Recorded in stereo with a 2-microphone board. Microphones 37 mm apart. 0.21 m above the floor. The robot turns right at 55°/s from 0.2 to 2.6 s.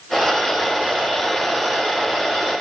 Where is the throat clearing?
No throat clearing in this recording.